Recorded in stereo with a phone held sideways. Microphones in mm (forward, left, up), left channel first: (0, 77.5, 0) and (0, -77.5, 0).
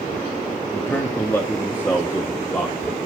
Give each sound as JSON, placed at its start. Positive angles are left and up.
{"t": 0.7, "sound": "a man speaking", "side_deg": 15, "distance_m": 1.3}